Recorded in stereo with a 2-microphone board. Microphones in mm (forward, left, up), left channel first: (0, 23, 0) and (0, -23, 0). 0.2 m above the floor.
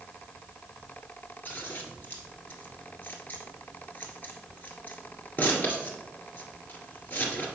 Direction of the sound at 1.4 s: 40° left (ahead or behind).